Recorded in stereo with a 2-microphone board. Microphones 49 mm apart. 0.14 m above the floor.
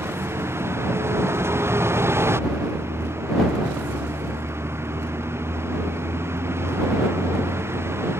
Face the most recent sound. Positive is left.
turn(degrees=-65)  # may be behind; listen again after turning